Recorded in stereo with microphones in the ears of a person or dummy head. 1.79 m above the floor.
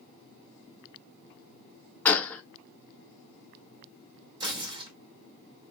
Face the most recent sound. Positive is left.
turn(degrees=-25)  # may be behind; listen again after turning